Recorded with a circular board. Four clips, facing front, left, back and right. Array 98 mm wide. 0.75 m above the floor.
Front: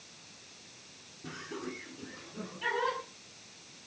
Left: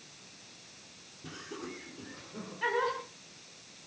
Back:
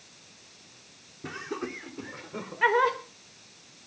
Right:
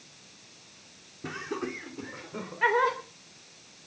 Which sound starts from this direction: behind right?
Laughter, at 1.2 s.